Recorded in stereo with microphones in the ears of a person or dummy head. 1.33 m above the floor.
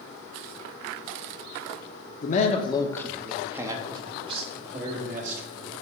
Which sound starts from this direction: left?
A man speaking, at 2.2 s.